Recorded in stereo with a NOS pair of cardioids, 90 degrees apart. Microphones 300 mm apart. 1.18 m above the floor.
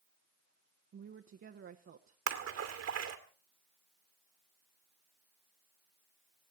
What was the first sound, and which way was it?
A woman speaking, 45° right.